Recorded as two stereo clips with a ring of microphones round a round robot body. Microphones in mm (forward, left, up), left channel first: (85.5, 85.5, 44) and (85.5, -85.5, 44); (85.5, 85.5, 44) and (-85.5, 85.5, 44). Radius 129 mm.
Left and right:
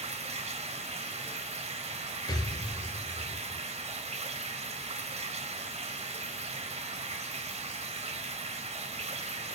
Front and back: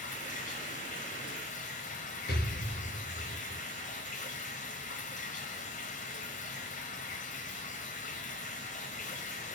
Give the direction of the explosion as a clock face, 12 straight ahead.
11 o'clock.